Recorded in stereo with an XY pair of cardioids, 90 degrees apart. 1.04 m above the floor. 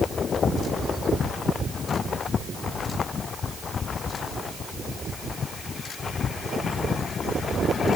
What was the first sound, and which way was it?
Only background noise.